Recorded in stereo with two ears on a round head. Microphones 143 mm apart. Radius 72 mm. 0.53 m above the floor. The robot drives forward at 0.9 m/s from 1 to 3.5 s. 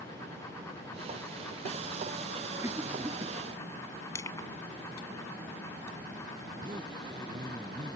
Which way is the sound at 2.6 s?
20° right (ahead or behind).